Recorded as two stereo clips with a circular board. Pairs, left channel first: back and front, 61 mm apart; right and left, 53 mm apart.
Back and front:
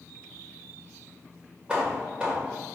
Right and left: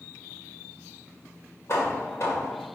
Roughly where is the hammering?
Right.